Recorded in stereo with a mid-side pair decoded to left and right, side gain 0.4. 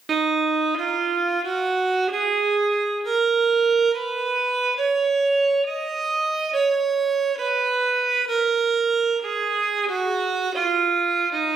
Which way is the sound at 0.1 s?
50° right.